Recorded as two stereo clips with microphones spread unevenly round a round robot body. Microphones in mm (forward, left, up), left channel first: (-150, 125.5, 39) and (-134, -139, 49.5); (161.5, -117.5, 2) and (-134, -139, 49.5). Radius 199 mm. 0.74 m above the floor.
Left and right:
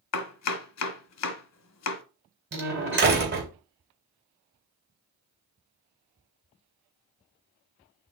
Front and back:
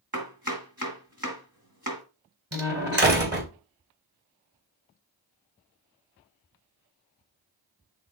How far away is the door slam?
About 3 m.